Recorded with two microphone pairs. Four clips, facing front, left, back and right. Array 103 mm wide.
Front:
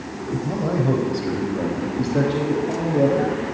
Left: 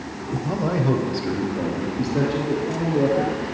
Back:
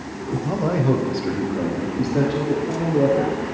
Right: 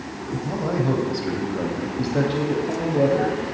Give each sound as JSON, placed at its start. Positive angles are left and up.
{"t": 0.3, "sound": "a man speaking", "azimuth_deg": 150, "distance_m": 1.1}